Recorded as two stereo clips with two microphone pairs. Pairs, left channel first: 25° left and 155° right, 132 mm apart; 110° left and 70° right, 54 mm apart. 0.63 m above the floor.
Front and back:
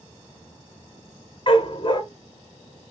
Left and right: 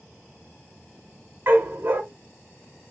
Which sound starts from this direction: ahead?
A dog barking, at 1.5 s.